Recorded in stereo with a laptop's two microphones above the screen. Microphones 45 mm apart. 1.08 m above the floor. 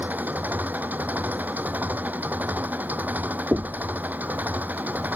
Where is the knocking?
50° right (ahead or behind).